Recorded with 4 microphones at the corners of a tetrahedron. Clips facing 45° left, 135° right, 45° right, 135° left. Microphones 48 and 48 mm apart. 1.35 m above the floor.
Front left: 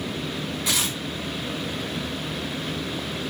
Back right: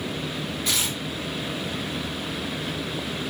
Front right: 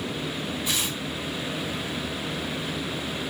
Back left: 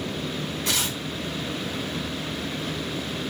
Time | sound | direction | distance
0.7 | tearing paper | 135° left | 4.5 m